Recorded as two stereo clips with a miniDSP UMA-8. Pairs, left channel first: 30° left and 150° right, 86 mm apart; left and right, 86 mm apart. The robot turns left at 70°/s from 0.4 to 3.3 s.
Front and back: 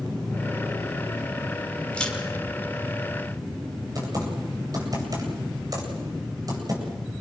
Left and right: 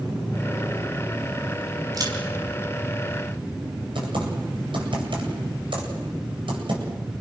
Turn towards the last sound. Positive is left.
turn(degrees=-105)